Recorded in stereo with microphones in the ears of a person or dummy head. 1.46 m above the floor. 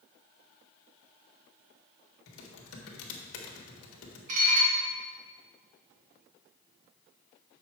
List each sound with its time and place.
2.3 s typing on a keyboard: 75° left (ahead or behind), 1.5 m
4.3 s dishes clattering: 40° right (ahead or behind), 1.3 m